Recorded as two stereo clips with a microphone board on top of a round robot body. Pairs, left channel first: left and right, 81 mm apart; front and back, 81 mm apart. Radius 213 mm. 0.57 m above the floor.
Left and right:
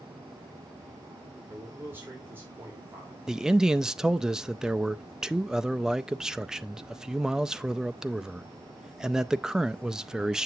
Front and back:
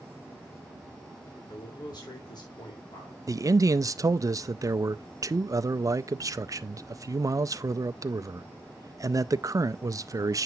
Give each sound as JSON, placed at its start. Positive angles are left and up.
{"t": 1.5, "sound": "a man speaking", "azimuth_deg": -25, "distance_m": 3.5}
{"t": 3.3, "sound": "a man speaking", "azimuth_deg": -170, "distance_m": 0.7}